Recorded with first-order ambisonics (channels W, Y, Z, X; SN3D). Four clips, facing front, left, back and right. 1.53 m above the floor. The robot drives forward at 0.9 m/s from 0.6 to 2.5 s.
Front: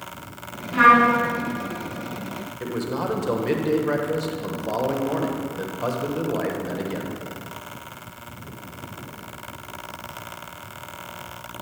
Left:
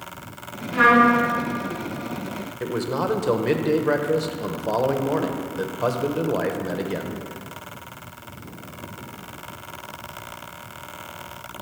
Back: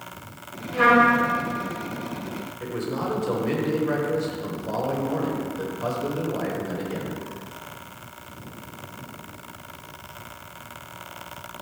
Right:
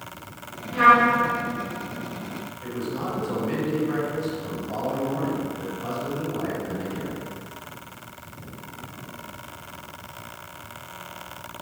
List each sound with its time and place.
0.7 s a trumpet: 20° left, 3 m; by 1.2 s 25° left, 2.5 m
2.6 s a man speaking: 70° left, 1.0 m